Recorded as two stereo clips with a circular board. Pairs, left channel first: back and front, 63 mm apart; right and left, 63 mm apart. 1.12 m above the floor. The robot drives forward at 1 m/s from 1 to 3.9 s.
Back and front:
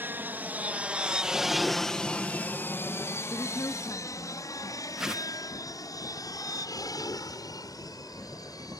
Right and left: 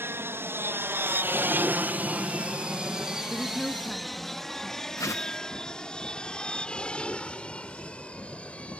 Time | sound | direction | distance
0.0 | an aircraft | 50° left | ?
3.3 | a woman speaking | 170° right | ?
5.0 | a whoosh | 80° right | ?